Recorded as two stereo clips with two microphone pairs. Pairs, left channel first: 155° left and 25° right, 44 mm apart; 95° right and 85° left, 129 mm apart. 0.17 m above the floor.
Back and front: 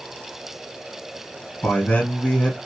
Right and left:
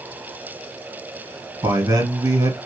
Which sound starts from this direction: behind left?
A man speaking, at 1.6 s.